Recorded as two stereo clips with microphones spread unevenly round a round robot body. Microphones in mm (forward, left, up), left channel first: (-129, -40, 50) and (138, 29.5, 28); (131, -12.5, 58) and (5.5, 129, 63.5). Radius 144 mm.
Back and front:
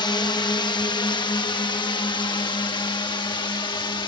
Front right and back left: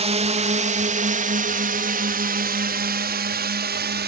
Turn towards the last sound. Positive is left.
turn(degrees=120)